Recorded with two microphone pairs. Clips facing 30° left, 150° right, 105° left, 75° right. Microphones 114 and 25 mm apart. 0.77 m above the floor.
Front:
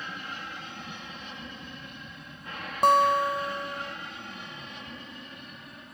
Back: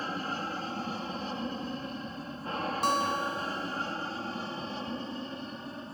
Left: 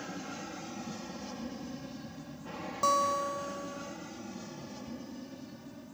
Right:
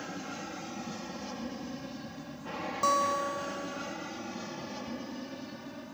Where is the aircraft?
150° right; by 5.9 s 110° right.